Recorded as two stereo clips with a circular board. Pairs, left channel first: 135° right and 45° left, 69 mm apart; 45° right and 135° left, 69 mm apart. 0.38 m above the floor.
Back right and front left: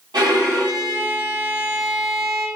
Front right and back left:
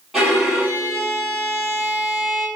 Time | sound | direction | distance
0.1 | a violin | 50° left | 1.8 m